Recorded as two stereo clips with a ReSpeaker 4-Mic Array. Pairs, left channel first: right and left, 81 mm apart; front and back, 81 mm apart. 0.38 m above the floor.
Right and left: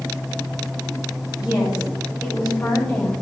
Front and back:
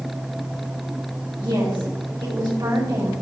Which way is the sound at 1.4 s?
160° left.